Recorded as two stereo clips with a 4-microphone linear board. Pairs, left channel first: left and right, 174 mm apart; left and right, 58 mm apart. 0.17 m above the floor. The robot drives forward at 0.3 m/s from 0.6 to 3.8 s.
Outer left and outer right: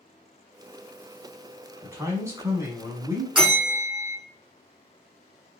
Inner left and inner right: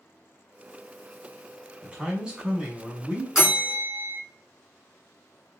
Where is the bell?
5° right (ahead or behind), 2.0 m.